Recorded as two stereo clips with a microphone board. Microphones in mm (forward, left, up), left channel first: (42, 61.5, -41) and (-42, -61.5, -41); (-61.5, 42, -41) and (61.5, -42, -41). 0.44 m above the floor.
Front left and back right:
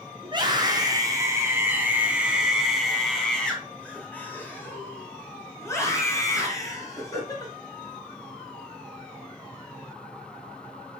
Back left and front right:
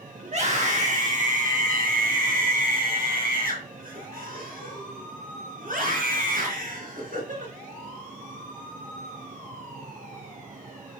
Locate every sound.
0.2 s a scream: 70° right, 2.5 m; by 7.5 s 10° right, 6 m